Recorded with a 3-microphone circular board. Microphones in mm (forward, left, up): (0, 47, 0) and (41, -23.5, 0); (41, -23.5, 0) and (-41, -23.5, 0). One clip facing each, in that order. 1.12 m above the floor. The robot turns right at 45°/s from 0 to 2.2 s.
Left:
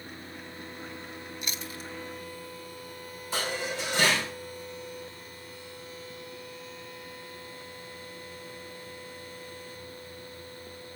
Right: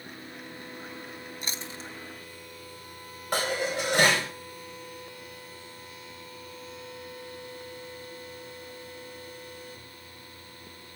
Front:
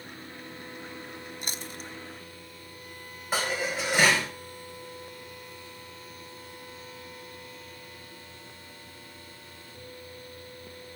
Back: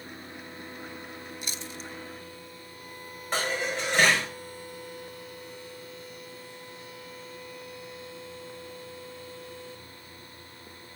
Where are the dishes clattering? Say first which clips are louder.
Right 4 dB, even; 85° right, 4 m.